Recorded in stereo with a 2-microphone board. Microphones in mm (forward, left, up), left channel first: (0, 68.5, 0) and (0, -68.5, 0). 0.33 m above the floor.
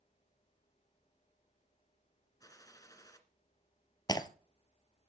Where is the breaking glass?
30° left (ahead or behind), 1.1 m.